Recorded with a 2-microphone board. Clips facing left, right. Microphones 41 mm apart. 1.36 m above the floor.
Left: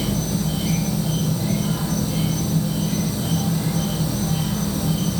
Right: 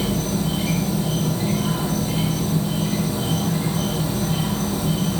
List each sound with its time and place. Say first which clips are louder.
0.0 s an insect: right 1 dB; 60° right (ahead or behind), 3 m